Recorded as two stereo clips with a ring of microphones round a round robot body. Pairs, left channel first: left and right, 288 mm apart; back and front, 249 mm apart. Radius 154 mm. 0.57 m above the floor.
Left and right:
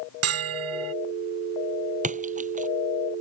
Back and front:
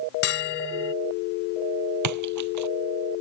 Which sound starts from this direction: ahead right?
A splash, at 2.0 s.